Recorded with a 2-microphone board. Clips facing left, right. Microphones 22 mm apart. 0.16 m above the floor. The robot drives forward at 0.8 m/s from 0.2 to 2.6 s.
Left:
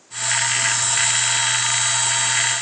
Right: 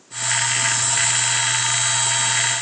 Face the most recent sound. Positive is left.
No sound to turn to.